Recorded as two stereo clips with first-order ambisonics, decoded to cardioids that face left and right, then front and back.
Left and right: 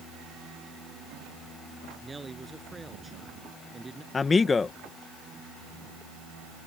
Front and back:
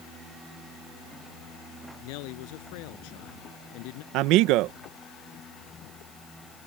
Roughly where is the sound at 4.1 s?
Behind.